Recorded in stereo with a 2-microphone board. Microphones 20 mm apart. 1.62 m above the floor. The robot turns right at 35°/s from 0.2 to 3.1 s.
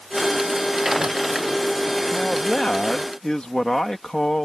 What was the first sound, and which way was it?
A man speaking, 90° left.